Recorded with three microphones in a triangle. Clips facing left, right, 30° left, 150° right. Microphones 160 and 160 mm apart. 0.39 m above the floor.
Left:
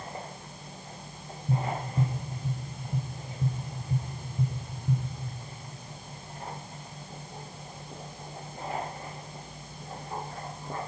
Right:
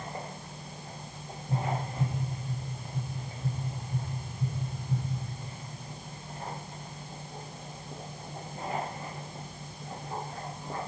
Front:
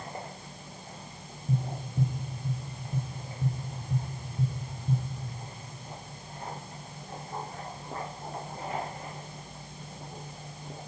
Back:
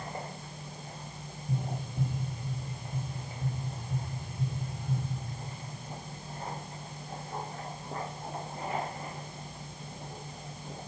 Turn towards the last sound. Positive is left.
turn(degrees=85)